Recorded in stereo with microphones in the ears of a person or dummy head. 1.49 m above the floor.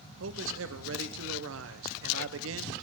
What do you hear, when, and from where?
0.2 s a man speaking: 70° right (ahead or behind), 0.8 m